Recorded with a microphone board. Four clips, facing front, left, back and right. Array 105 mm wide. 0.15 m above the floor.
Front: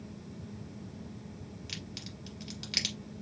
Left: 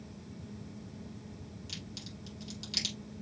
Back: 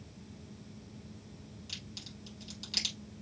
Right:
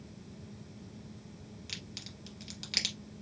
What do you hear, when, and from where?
1.7 s a crack: 50° right, 2 m